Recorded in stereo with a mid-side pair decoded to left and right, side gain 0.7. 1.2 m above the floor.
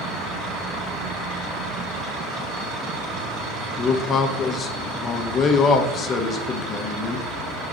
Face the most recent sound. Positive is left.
turn(degrees=40)